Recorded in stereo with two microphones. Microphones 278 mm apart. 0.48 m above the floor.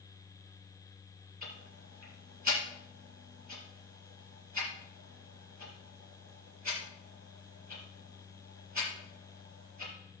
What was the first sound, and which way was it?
Ticking, 80° right.